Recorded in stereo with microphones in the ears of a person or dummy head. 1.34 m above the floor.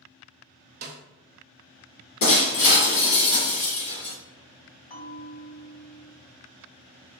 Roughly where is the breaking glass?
Left.